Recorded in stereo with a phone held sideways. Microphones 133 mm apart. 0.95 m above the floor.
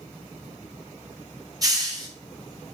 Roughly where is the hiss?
Right.